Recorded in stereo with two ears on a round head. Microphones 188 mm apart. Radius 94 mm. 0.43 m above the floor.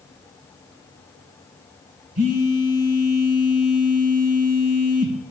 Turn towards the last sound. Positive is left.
turn(degrees=-65)  # may be behind; listen again after turning